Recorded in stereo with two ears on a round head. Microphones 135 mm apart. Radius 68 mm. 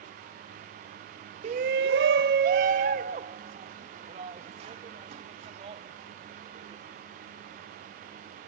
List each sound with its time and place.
1.4 s a shout: 45° right (ahead or behind); by 6.8 s 40° right (ahead or behind)